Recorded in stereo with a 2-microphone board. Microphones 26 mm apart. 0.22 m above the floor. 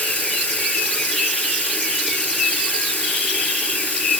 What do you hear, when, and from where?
0.0 s running water: 70° left (ahead or behind), 2.0 m